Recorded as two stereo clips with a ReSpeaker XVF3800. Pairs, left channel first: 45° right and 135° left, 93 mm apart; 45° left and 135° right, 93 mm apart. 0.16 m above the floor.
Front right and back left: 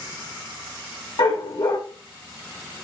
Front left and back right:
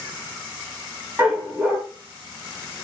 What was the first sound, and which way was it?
A dog barking, 65° right.